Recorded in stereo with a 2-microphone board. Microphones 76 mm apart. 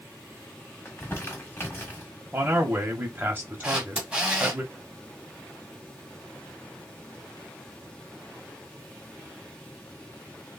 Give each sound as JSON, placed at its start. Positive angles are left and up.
{"t": 0.8, "sound": "crumpling", "side_deg": 25, "distance_m": 1.5}
{"t": 2.3, "sound": "a man speaking", "side_deg": -25, "distance_m": 1.0}
{"t": 3.6, "sound": "a camera shutter", "side_deg": -15, "distance_m": 1.4}